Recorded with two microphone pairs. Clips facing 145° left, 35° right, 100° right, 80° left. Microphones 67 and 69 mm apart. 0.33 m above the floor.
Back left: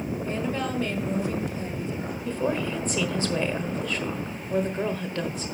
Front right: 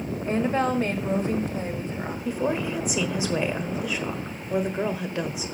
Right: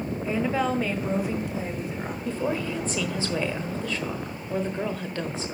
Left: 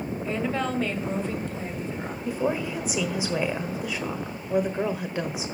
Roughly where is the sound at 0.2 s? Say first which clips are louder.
Front right 8 dB, right 3 dB; ahead.